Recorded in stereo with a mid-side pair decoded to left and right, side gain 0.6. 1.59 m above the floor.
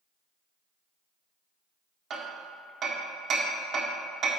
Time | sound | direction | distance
2.1 | hammering | 50° right | 1.2 m